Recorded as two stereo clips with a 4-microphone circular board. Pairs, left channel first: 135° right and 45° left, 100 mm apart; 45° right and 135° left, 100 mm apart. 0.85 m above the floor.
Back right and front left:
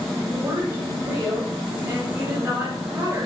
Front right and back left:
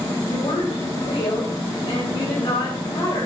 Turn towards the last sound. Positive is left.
turn(degrees=-10)